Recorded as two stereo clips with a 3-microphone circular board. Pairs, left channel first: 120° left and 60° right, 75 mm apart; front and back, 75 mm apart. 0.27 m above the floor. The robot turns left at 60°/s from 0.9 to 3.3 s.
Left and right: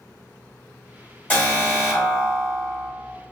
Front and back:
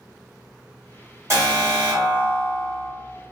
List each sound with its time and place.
1.3 s an alarm: 170° left, 1.8 m; by 2.9 s 75° left, 1.8 m